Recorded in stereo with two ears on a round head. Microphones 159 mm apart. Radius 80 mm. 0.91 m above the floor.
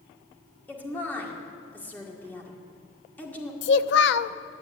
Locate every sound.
0.7 s a woman speaking: 10° left (ahead or behind), 2 m
3.6 s a child speaking: 70° left (ahead or behind), 0.6 m